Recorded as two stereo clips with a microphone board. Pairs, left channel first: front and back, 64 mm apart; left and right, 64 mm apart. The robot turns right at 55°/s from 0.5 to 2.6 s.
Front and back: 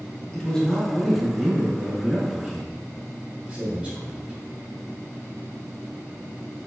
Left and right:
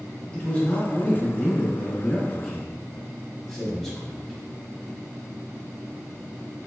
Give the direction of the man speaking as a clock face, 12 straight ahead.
10 o'clock.